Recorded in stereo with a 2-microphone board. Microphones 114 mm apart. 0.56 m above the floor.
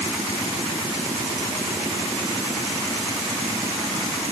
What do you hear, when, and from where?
Only background noise.